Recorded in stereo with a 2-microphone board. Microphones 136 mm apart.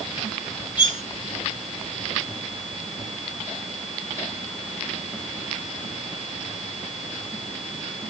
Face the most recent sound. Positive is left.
turn(degrees=40)  # may be behind; listen again after turning